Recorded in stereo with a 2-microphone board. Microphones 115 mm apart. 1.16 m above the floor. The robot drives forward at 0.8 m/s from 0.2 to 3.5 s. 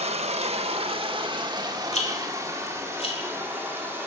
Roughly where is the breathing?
No breathing in this recording.